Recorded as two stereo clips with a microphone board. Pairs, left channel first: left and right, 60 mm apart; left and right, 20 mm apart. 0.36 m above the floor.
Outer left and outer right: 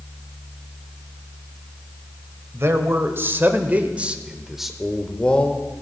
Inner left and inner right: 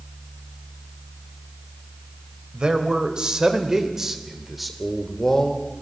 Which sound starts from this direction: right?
A man speaking, at 2.5 s.